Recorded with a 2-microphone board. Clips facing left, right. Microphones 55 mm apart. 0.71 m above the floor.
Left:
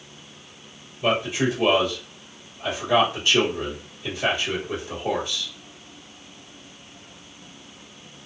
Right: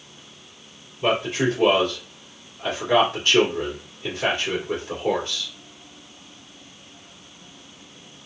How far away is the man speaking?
About 1.9 m.